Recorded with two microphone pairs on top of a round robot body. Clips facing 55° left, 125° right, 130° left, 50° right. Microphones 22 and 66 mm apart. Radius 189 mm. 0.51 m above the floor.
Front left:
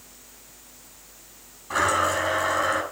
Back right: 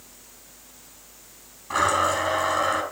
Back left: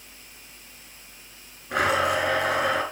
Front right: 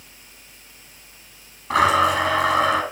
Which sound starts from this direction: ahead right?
A blender, at 1.7 s.